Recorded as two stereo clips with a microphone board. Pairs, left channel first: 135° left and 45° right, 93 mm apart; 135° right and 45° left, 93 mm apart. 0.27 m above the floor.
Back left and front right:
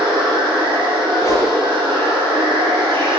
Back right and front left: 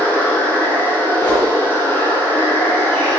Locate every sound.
0.0 s running water: 65° right, 6.5 m
1.2 s a whoosh: 170° right, 4 m